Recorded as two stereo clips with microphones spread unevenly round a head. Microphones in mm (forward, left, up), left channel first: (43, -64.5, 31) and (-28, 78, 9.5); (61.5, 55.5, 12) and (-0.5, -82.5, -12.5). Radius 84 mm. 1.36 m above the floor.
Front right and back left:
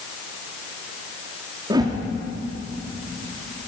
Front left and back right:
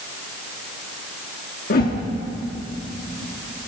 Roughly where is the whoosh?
Ahead left.